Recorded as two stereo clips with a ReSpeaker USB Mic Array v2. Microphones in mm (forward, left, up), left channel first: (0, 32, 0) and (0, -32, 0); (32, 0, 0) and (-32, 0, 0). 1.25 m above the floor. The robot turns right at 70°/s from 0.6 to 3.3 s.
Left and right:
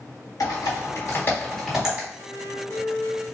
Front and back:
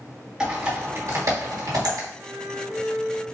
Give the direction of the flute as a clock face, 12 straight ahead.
9 o'clock.